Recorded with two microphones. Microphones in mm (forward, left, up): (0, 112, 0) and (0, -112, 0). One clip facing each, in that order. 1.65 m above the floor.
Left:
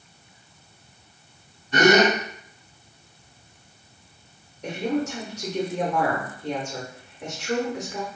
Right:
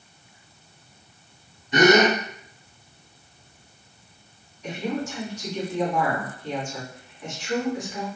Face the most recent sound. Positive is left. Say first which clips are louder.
# left 3 dB
turn(degrees=65)  # may be behind; listen again after turning